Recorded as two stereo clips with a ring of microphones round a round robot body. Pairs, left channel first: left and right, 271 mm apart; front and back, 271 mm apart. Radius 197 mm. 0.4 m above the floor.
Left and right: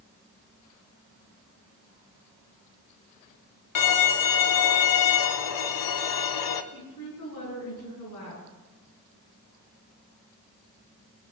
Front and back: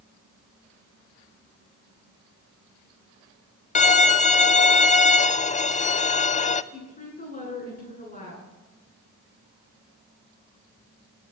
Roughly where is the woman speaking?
Ahead left.